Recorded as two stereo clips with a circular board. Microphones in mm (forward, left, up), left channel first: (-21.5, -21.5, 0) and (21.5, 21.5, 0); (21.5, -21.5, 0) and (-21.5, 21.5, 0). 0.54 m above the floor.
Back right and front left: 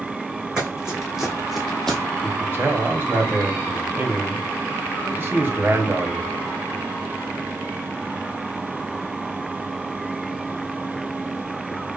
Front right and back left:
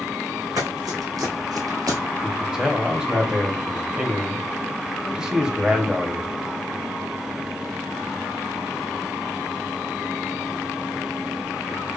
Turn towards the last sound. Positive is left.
turn(degrees=65)